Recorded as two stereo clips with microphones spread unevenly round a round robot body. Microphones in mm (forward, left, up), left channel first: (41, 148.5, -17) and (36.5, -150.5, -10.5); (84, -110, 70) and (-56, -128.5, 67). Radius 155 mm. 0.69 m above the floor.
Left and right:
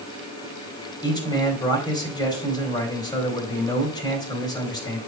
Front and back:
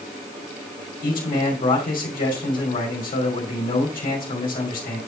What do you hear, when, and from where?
1.0 s a man speaking: 15° left, 2.5 m